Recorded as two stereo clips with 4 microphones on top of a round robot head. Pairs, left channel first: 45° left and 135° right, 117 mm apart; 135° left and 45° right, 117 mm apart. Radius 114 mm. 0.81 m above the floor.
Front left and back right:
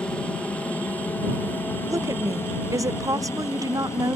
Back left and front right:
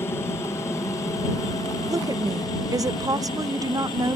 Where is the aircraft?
110° left; by 4.2 s 105° left.